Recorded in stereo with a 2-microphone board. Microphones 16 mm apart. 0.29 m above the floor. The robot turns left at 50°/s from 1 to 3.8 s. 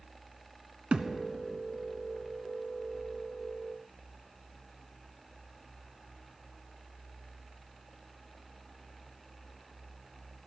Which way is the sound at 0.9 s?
75° right (ahead or behind).